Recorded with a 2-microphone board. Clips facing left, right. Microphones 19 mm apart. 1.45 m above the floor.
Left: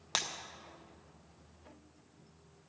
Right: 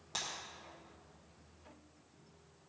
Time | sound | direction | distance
0.1 | breaking glass | 40° left (ahead or behind) | 0.7 m